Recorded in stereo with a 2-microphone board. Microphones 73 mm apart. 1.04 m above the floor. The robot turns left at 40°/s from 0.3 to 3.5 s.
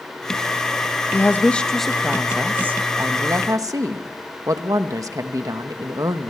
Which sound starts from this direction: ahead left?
A woman speaking, at 1.1 s.